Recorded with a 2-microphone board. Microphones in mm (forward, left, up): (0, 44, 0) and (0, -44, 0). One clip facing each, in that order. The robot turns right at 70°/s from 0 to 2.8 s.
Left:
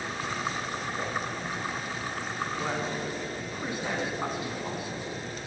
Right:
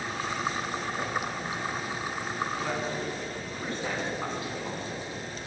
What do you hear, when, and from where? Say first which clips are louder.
2.6 s a man speaking: even; 20° left (ahead or behind), 1.7 m; by 5.1 s 10° left (ahead or behind), 1.7 m